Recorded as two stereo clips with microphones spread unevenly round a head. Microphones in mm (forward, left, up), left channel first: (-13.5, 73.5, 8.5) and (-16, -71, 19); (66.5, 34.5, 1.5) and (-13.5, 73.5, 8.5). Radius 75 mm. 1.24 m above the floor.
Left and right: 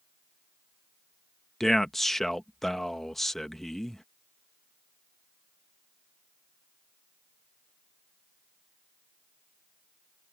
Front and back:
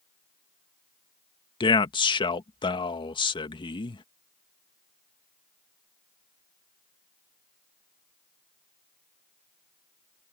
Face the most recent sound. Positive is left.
turn(degrees=0)